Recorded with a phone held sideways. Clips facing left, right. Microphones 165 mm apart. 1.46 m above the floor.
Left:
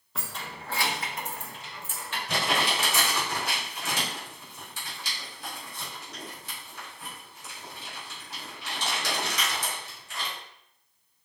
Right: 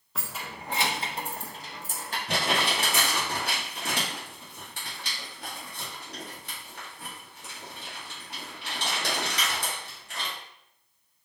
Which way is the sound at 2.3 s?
60° right (ahead or behind).